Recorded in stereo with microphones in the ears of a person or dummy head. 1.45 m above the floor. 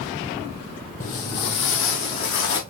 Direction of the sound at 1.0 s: 40° left (ahead or behind).